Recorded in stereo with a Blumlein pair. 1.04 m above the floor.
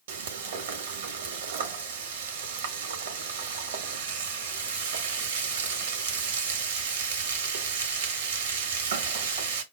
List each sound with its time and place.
0.1 s frying: 60° right, 1.0 m